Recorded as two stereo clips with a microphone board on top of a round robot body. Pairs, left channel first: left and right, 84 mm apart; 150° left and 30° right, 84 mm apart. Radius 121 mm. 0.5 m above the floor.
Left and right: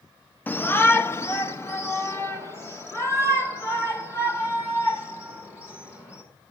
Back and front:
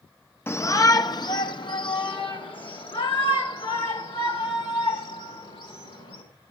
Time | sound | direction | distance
0.5 | a shout | 130° left | 0.8 m